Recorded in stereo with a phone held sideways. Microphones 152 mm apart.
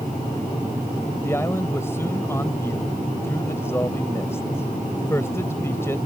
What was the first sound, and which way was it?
A man speaking, 15° left (ahead or behind).